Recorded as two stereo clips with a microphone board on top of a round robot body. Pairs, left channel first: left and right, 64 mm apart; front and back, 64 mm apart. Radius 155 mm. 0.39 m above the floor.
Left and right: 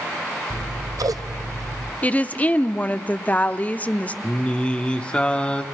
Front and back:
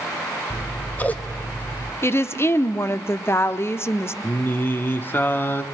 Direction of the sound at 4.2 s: 25° left.